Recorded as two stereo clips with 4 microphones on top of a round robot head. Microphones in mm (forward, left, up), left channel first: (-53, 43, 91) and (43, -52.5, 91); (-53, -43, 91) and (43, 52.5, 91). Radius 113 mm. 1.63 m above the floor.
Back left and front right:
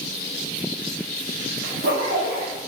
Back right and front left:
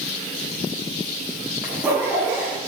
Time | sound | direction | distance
1.6 | a zipper | 30° right | 2 m